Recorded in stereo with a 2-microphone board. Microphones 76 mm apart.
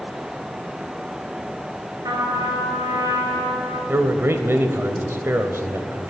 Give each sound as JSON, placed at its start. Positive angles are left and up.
{"t": 2.0, "sound": "a trumpet", "side_deg": -75, "distance_m": 4.0}
{"t": 3.9, "sound": "a man speaking", "side_deg": -35, "distance_m": 1.0}